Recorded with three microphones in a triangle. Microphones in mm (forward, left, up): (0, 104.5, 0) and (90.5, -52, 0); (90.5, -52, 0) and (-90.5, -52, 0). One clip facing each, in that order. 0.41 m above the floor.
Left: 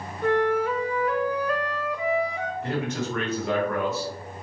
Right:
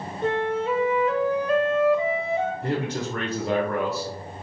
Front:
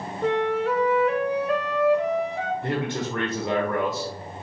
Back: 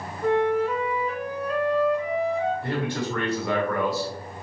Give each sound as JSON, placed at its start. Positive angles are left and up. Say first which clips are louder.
{"t": 0.2, "sound": "a flute", "louder": "left 2 dB, back 1 dB", "azimuth_deg": 10, "distance_m": 0.5}
{"t": 2.6, "sound": "a man speaking", "louder": "right 1 dB, even", "azimuth_deg": -50, "distance_m": 0.9}